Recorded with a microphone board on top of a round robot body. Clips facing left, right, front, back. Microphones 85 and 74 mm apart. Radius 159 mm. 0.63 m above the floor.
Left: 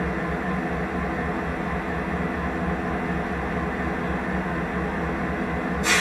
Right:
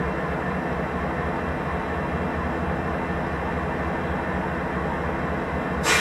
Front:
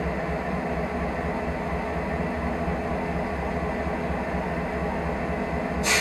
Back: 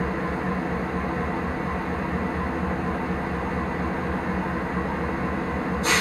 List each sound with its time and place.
0.0 s an engine running: 170° right, 1.0 m